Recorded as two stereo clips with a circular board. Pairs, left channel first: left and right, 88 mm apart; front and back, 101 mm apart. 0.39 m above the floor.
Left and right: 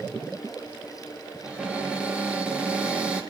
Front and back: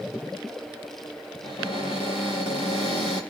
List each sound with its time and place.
1.4 s a cupboard door: 15° right, 6 m